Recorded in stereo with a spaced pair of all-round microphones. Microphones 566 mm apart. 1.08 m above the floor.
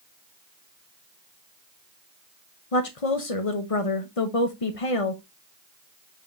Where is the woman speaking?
70° left (ahead or behind), 1.0 m.